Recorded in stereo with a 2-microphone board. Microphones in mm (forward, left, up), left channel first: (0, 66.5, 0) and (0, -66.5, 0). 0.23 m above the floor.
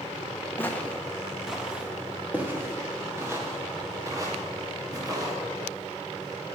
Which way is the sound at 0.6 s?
20° left (ahead or behind).